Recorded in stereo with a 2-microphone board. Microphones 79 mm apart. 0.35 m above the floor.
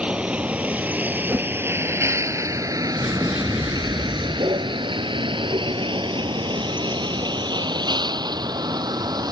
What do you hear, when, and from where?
0.0 s a vehicle: 10° right (ahead or behind); by 9.3 s 55° right (ahead or behind)
1.3 s a whoosh: 25° right (ahead or behind)
3.0 s an explosion: 10° right (ahead or behind)